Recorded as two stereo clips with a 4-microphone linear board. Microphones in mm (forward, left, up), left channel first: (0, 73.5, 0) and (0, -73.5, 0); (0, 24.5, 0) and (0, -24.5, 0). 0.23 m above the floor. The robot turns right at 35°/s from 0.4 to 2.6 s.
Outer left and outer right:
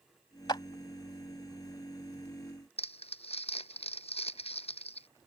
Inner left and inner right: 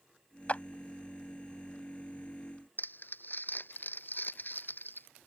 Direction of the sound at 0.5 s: 30° left (ahead or behind).